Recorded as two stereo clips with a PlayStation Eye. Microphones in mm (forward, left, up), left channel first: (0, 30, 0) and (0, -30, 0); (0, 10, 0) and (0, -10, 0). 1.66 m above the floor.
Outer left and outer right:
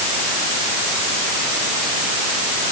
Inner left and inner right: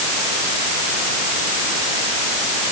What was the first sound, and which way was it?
Only background noise.